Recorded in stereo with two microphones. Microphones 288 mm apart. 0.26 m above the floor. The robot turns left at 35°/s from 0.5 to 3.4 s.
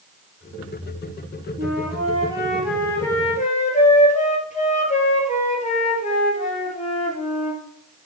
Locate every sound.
1.6 s a flute: 140° right, 2.5 m; by 7.6 s 155° left, 2.5 m